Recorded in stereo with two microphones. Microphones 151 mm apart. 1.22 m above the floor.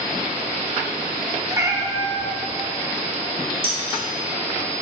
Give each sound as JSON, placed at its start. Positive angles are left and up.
{"t": 1.5, "sound": "a cat meowing", "side_deg": -20, "distance_m": 0.7}
{"t": 3.6, "sound": "dishes clattering", "side_deg": -70, "distance_m": 2.5}